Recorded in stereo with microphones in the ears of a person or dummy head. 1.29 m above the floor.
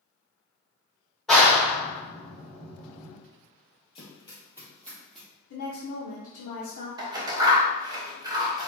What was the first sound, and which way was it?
A clap, centre (ahead or behind).